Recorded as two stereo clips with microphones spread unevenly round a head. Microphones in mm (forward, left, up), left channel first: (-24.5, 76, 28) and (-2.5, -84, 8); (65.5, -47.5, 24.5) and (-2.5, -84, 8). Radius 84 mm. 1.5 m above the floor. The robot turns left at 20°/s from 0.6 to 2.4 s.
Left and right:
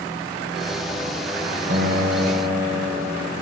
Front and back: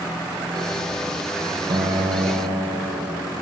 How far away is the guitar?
About 1.2 m.